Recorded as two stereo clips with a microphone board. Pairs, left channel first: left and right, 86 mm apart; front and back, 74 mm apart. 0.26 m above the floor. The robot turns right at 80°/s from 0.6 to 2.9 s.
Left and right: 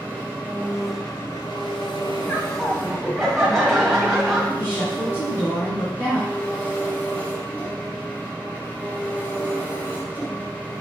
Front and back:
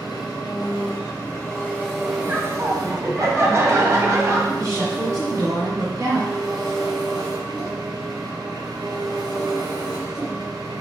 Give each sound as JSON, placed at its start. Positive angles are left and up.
{"t": 0.0, "sound": "an engine running", "azimuth_deg": -20, "distance_m": 2.0}
{"t": 2.3, "sound": "laughter", "azimuth_deg": 125, "distance_m": 1.8}
{"t": 4.6, "sound": "a woman speaking", "azimuth_deg": 145, "distance_m": 2.5}